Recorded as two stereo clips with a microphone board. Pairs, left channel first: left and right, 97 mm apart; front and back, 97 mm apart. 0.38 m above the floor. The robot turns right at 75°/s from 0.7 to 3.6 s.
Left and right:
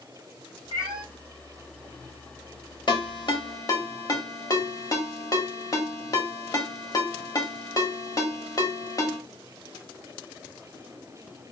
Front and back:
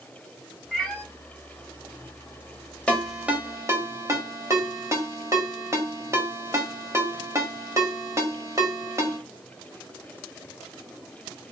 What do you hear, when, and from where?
0.7 s a cat meowing: 90° right, 1.1 m; by 1.0 s 65° right, 1.1 m
2.9 s a ringtone: 75° left, 1.3 m; by 9.2 s 130° left, 1.3 m